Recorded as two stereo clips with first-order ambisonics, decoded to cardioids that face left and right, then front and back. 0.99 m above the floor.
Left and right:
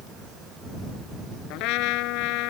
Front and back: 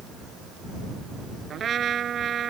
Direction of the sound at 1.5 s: 115° left.